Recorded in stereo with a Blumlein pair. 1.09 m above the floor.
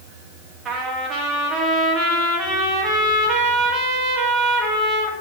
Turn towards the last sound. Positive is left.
turn(degrees=-20)